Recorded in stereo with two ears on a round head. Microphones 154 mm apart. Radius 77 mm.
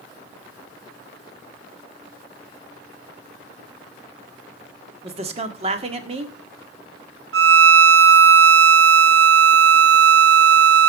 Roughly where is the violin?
Right.